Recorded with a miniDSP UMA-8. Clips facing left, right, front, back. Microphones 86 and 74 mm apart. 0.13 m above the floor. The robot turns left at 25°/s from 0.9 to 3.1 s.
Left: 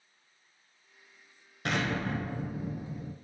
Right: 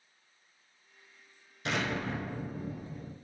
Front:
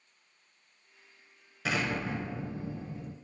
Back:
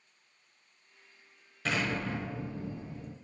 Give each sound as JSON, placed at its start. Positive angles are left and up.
{"t": 1.6, "sound": "an explosion", "azimuth_deg": 80, "distance_m": 0.7}